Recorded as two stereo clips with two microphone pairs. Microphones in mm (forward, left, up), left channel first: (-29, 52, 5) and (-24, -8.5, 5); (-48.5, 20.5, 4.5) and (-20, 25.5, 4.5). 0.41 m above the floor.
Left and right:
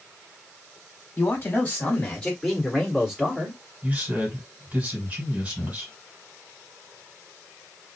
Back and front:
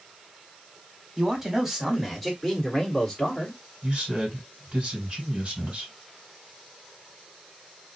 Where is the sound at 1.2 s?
70° left, 1.6 m; by 3.6 s 130° right, 1.4 m.